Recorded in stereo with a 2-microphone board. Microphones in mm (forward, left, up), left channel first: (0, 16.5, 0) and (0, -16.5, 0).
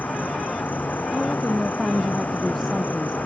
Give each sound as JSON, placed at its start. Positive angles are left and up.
{"t": 0.0, "sound": "an insect", "side_deg": 65}
{"t": 1.1, "sound": "a woman speaking", "side_deg": 0}